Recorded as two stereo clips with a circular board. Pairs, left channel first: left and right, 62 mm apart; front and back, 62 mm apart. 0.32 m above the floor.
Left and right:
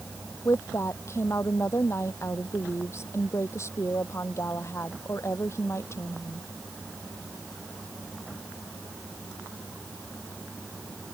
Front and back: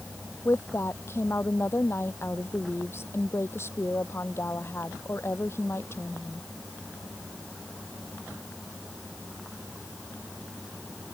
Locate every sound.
0.5 s a woman speaking: 45° left